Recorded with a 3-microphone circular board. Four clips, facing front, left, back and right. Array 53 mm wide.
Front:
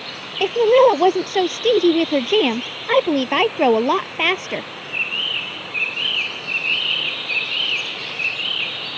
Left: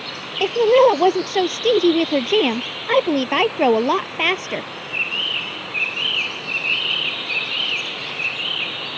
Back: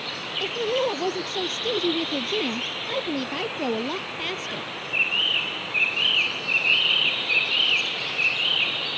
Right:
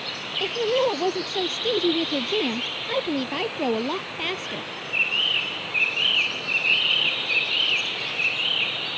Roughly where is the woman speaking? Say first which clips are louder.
Left 10 dB, front 13 dB; ahead left.